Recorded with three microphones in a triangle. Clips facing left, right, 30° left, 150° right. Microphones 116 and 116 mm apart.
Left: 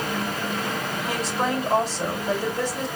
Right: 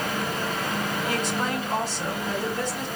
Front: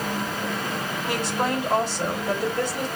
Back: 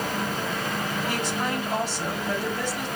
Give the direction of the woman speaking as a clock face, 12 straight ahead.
11 o'clock.